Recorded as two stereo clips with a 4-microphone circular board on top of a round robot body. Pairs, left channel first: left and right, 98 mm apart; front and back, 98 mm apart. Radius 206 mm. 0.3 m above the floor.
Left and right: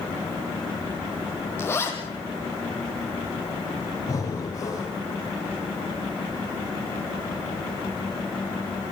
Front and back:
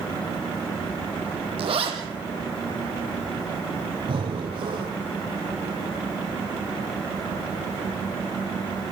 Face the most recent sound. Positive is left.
turn(degrees=145)